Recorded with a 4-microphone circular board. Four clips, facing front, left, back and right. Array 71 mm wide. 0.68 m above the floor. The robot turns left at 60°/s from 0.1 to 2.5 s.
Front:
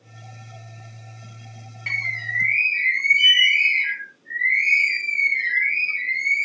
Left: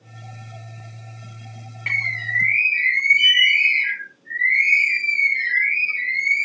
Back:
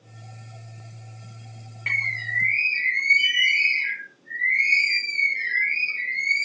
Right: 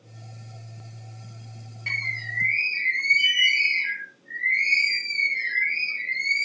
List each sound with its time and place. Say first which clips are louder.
1.9 s a bird: left 6 dB, even; 110° left, 1.1 m; by 6.5 s 70° left, 1.1 m